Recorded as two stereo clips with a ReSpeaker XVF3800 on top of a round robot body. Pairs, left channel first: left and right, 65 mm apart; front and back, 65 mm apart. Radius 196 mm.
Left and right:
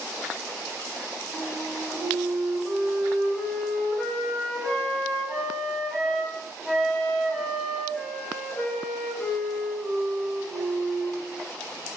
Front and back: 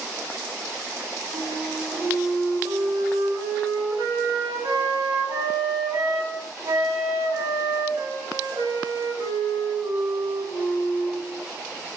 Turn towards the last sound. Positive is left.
turn(degrees=170)